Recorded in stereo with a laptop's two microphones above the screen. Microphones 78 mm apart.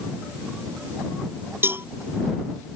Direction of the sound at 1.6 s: 30° right (ahead or behind).